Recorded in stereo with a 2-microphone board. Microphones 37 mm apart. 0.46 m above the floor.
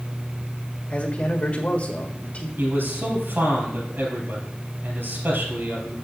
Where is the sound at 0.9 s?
40° left (ahead or behind), 1.5 m.